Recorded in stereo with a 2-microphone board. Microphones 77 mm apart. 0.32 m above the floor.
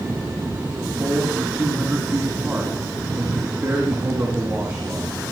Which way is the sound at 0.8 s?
15° right (ahead or behind).